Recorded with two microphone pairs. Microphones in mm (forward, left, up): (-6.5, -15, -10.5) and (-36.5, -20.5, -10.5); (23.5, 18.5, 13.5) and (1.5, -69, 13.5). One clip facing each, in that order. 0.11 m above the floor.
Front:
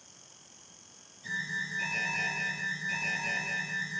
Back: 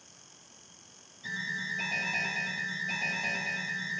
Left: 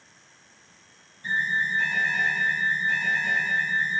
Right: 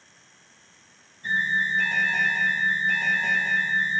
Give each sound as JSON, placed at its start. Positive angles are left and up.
{"t": 1.2, "sound": "an alarm", "azimuth_deg": -115, "distance_m": 3.5}